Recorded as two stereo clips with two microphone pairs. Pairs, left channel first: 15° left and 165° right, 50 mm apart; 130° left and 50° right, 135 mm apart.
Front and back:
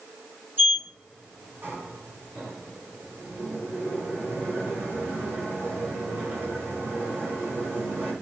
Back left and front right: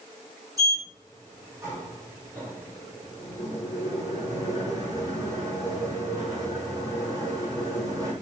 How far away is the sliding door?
About 5.5 m.